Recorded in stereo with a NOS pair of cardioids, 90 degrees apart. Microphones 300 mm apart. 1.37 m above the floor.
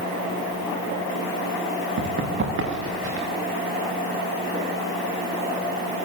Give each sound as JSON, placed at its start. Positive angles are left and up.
{"t": 2.0, "sound": "running footsteps", "azimuth_deg": -40, "distance_m": 9.0}